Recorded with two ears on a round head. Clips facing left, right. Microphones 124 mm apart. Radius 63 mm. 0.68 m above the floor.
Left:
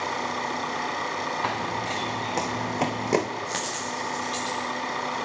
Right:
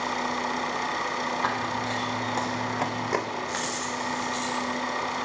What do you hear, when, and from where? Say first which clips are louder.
0.0 s an engine running: even; centre (ahead or behind), 6.5 m
1.4 s running footsteps: even; 20° left (ahead or behind), 2.5 m; by 3.3 s 25° left (ahead or behind), 1.5 m
3.5 s a dropped coin: even; 25° left (ahead or behind), 7.5 m